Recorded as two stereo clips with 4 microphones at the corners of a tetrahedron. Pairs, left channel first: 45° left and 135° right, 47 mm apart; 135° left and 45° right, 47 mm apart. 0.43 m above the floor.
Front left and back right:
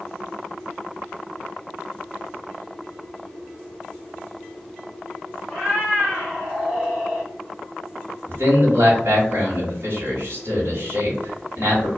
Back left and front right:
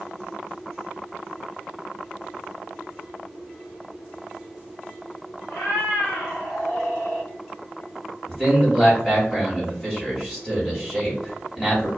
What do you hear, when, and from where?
5.5 s a cat meowing: 120° left, 1.6 m; by 7.3 s 155° left, 1.7 m
8.3 s a man speaking: 150° right, 1.3 m